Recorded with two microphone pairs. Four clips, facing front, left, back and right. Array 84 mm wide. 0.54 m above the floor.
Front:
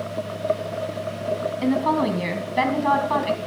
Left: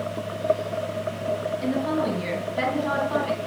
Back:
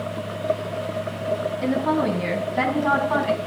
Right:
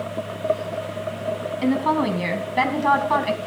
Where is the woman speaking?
55° right, 4 m; by 3.4 s 85° right, 3.5 m.